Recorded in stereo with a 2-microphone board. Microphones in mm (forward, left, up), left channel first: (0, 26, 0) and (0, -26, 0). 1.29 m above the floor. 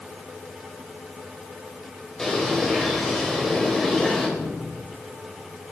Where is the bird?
10° left (ahead or behind), 4.5 m.